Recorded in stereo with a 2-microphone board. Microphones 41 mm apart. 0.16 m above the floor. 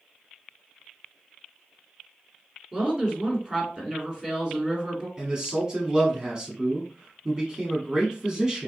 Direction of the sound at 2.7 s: 20° right (ahead or behind).